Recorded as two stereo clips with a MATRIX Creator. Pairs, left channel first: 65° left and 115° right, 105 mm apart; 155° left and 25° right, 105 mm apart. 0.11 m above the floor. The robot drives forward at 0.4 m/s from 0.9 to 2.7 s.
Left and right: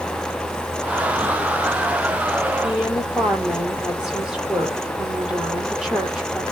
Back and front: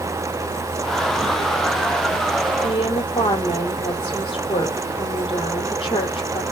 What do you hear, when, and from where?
2.6 s a woman speaking: 160° left, 3.5 m; by 6.4 s 165° left, 3.5 m